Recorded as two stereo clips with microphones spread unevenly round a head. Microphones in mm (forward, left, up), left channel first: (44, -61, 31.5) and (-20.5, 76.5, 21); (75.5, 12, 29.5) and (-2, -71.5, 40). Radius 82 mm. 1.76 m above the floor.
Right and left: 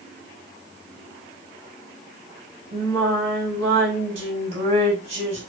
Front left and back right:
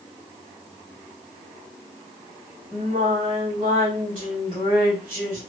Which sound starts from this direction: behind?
Singing, at 2.7 s.